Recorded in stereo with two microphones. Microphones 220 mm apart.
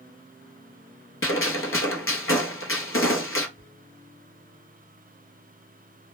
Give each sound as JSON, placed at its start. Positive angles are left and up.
{"t": 1.2, "sound": "a gunshot", "side_deg": 70, "distance_m": 0.6}
{"t": 3.6, "sound": "whispering", "side_deg": -15, "distance_m": 1.5}